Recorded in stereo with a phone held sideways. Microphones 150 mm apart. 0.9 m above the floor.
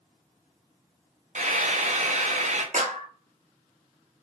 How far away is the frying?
About 0.5 m.